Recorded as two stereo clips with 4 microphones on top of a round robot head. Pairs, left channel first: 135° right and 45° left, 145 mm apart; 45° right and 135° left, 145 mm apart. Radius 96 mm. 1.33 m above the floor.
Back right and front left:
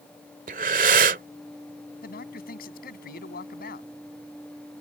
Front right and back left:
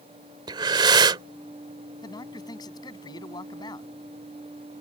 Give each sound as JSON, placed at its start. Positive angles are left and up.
{"t": 0.5, "sound": "breathing", "azimuth_deg": 80}
{"t": 2.0, "sound": "a man speaking", "azimuth_deg": -110}